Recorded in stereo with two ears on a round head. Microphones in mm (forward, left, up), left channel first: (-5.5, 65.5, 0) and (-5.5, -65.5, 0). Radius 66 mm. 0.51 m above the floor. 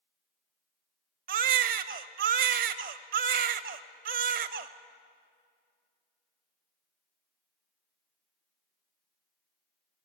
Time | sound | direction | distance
1.3 | a baby crying | 65° right (ahead or behind) | 0.7 m